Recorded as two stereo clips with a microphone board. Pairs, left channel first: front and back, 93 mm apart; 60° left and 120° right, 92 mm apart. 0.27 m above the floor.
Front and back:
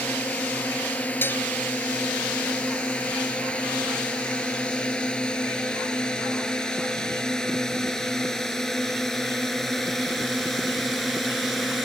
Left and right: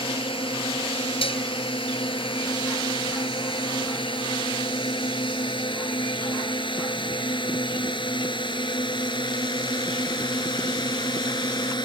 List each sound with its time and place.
0.0 s a drone: 75° left; by 11.9 s 90° left
1.2 s dishes clattering: 70° left